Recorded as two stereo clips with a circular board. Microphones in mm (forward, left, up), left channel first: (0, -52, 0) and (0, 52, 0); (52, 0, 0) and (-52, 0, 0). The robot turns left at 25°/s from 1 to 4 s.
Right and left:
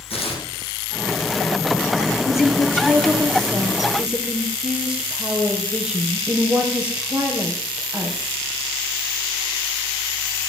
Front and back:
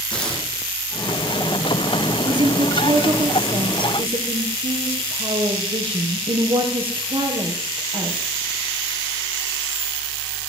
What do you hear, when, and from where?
0.1 s tearing paper: 80° right, 6 m
2.2 s a woman speaking: 145° right, 3.5 m; by 8.4 s 170° left, 3.5 m